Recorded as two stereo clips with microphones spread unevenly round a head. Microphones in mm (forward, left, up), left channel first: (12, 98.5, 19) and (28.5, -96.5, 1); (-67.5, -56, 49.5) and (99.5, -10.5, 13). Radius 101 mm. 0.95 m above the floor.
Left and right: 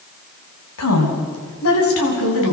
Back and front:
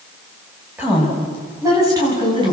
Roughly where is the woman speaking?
Left.